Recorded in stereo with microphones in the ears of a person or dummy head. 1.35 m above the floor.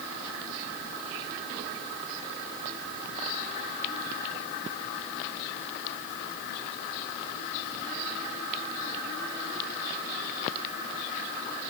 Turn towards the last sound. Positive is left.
No sound to turn to.